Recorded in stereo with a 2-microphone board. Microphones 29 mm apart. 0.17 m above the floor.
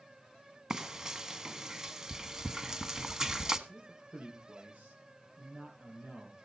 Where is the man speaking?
55° right (ahead or behind), 5.5 m.